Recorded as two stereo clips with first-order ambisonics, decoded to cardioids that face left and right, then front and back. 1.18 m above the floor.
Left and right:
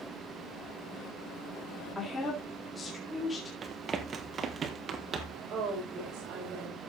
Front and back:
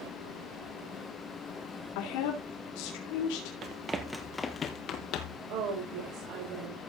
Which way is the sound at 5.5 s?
155° right.